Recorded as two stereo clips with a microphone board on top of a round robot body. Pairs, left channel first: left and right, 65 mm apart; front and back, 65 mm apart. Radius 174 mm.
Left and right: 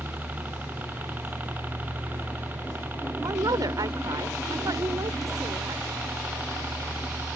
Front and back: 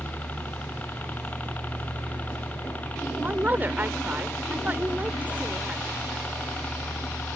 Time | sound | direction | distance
0.0 | a helicopter | 50° right | ?
3.2 | a woman speaking | 115° right | ?